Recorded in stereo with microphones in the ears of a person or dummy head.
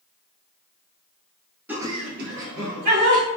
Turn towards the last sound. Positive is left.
turn(degrees=-70)  # may be behind; listen again after turning